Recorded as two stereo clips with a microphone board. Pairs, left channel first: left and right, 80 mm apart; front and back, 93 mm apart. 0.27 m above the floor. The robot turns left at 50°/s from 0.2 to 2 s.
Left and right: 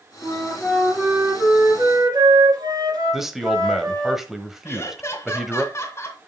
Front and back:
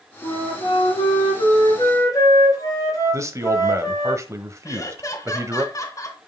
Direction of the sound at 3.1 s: 170° right.